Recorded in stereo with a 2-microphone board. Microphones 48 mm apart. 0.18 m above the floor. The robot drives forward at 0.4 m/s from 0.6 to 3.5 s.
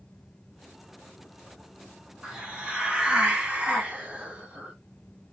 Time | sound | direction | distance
2.2 | a hiss | 20° right (ahead or behind) | 1.5 m